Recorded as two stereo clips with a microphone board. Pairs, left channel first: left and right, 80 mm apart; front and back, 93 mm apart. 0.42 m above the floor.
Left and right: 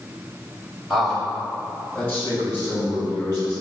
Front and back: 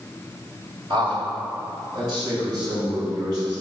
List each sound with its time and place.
0.9 s a man speaking: straight behind, 2 m; by 3.6 s 140° left, 4.5 m